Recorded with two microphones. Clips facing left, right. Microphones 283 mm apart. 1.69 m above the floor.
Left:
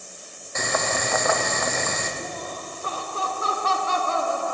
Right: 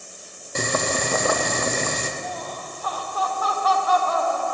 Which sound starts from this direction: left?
Laughter, at 2.2 s.